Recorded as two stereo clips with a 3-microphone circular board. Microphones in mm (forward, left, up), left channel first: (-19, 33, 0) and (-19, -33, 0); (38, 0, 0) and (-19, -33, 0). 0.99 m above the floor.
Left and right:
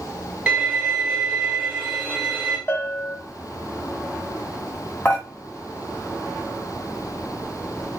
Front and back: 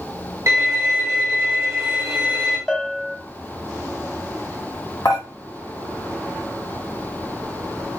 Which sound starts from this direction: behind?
A violin, at 0.5 s.